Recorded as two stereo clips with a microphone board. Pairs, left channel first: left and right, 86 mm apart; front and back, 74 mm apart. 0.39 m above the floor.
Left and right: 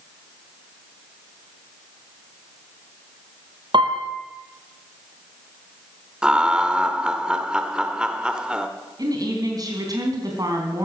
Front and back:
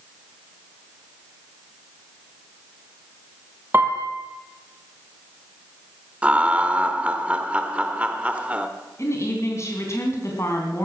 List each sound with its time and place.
3.7 s a piano: 115° right, 2 m
6.2 s laughter: 150° right, 0.9 m
9.0 s a woman speaking: 45° right, 3.5 m